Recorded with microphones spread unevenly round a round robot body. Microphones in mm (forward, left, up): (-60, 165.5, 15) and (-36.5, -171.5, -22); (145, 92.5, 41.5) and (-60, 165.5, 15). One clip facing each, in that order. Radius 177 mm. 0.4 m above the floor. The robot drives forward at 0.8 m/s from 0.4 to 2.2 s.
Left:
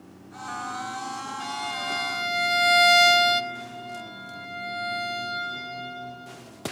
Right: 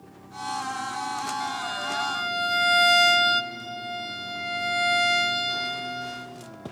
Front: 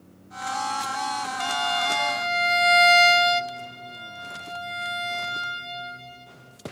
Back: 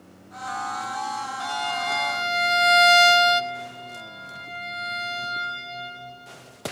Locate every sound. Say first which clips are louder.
1.4 s a violin: right 1 dB, front 2 dB; 15° left, 0.8 m; by 3.4 s 160° left, 0.7 m
3.5 s a violin: right 1 dB, back 2 dB; 85° right, 2.5 m